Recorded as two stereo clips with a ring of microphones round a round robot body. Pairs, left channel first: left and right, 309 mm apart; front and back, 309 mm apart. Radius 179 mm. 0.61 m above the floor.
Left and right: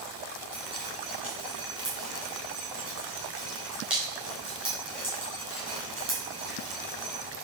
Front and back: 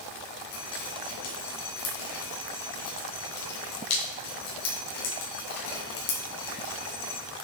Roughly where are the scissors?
No scissors in this recording.